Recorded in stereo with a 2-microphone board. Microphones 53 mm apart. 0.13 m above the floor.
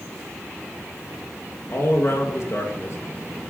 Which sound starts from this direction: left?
A man speaking, at 1.7 s.